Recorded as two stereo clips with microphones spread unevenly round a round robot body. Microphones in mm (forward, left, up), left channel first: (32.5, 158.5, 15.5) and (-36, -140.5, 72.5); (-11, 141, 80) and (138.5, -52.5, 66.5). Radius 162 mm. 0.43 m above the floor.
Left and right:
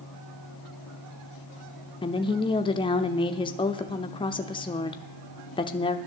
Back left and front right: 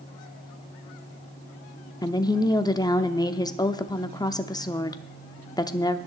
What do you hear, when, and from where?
2.0 s a woman speaking: 65° left, 0.8 m